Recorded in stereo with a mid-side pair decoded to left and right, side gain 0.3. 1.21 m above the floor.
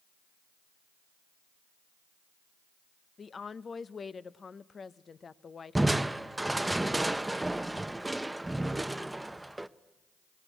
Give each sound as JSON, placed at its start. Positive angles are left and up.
{"t": 3.2, "sound": "a woman speaking", "azimuth_deg": 55, "distance_m": 0.7}
{"t": 5.8, "sound": "crushing", "azimuth_deg": -15, "distance_m": 0.7}